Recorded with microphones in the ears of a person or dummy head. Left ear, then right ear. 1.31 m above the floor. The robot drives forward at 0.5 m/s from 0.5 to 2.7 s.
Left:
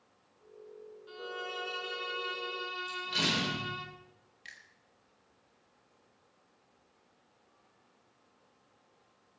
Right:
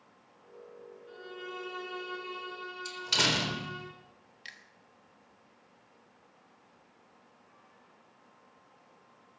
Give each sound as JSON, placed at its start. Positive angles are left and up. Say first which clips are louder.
{"t": 1.1, "sound": "a violin", "louder": "left 4 dB", "side_deg": 35, "distance_m": 3.5}
{"t": 2.9, "sound": "a door slam", "louder": "right 5 dB", "side_deg": -70, "distance_m": 3.5}
{"t": 4.5, "sound": "a finger snap", "louder": "right 2 dB", "side_deg": -20, "distance_m": 1.5}